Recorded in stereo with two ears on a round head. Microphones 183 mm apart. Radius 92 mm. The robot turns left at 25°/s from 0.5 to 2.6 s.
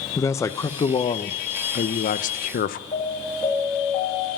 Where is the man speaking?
160° left, 0.5 m; by 2.8 s 105° left, 0.5 m.